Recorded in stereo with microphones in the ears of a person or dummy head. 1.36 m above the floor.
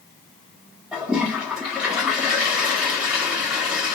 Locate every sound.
0.9 s a toilet flushing: 5° right (ahead or behind), 1.1 m